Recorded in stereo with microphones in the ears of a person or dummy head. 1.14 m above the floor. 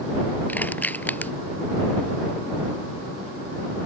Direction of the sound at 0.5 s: 5° left (ahead or behind).